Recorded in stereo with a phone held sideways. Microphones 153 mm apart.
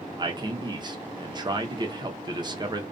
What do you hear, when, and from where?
0.2 s a man speaking: 30° right (ahead or behind), 0.6 m